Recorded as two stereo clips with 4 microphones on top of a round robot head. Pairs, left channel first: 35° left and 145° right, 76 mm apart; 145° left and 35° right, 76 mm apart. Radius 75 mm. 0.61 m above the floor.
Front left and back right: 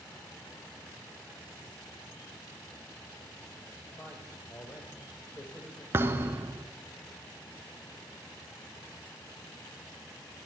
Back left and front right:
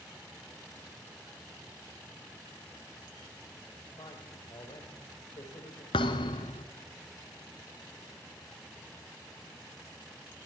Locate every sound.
4.0 s a man speaking: 105° left, 2.5 m
5.9 s a thud: 155° left, 1.1 m